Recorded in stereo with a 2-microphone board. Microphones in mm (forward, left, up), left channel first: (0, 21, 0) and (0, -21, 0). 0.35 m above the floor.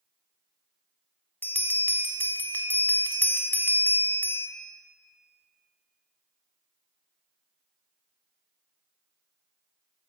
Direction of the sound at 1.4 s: 55° left (ahead or behind).